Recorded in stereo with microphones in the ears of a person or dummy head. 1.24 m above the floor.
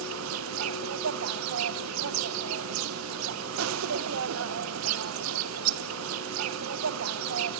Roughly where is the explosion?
No explosion in this recording.